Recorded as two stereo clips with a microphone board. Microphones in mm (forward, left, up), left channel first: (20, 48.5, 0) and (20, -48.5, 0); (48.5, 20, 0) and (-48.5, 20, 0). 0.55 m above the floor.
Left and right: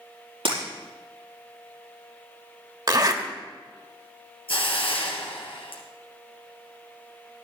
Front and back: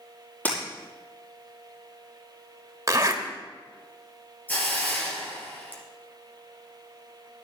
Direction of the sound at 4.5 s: 70° left.